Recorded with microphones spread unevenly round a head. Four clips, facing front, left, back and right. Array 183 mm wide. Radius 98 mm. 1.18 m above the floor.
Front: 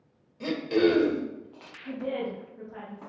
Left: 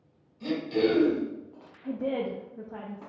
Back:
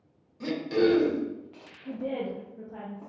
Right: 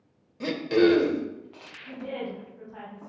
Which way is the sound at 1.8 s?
115° left.